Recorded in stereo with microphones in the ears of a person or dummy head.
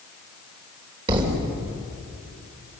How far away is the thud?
About 3.5 m.